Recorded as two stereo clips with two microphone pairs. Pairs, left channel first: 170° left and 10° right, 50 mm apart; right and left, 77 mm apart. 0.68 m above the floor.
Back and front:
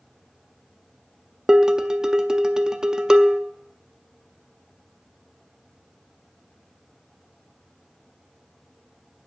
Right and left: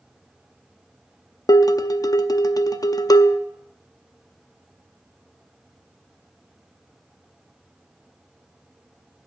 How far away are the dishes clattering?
About 0.5 m.